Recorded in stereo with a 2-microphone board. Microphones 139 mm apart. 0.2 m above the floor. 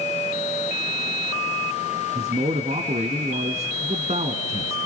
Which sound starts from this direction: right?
A man speaking, at 2.1 s.